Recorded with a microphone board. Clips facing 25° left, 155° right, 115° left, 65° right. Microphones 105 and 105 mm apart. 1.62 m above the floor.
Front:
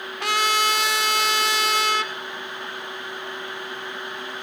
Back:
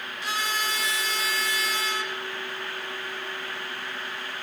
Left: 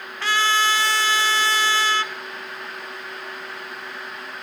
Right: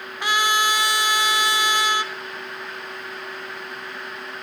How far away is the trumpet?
About 0.5 m.